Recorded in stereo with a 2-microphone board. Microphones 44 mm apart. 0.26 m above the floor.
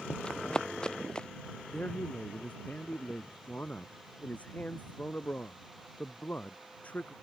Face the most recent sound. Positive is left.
turn(degrees=30)  # may be behind; listen again after turning